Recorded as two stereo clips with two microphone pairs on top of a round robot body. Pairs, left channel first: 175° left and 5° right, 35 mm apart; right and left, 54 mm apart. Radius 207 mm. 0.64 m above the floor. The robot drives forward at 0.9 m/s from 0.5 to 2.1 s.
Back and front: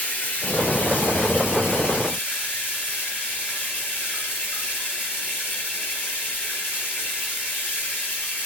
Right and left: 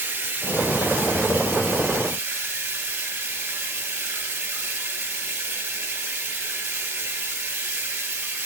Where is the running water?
145° left, 4 m; by 8.5 s 155° left, 5.5 m.